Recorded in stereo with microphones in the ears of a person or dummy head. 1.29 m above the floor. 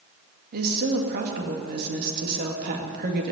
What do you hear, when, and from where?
0.5 s a woman speaking: 55° right (ahead or behind), 2 m